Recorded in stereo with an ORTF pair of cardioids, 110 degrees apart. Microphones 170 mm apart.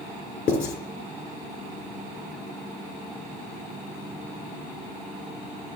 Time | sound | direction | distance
0.5 | writing | 60° left | 4 m